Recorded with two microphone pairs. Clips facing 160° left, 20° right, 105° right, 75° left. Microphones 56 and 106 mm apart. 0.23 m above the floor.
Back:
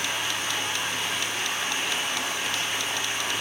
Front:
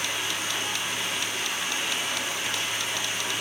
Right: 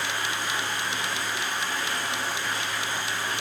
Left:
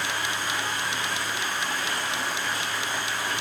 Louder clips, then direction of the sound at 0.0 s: Back 1 dB, even; 120° left.